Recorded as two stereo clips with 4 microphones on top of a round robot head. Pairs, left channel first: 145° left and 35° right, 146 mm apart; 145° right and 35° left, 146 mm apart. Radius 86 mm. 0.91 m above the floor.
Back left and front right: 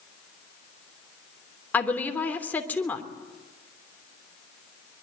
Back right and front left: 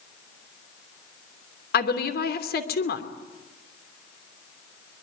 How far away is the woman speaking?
About 3 m.